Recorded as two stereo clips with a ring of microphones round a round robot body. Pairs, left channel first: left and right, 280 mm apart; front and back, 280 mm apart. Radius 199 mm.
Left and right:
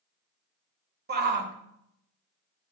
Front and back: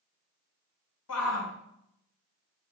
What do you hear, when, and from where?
1.1 s a shout: 40° right, 1.6 m